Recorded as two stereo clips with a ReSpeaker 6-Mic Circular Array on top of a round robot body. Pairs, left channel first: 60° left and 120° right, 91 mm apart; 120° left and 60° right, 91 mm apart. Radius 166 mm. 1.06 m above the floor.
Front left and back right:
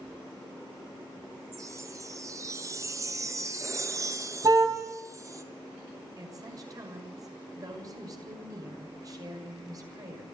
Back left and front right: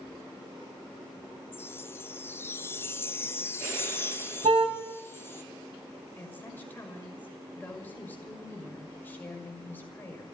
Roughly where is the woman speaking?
Behind.